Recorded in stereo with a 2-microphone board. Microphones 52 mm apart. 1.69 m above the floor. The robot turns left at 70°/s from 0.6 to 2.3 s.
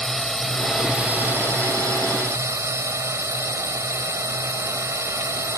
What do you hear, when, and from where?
0.0 s a drone: 5° left; by 5.6 s 115° right